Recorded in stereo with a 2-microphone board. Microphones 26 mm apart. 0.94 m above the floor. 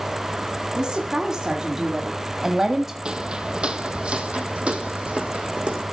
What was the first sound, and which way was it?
A woman speaking, 40° right (ahead or behind).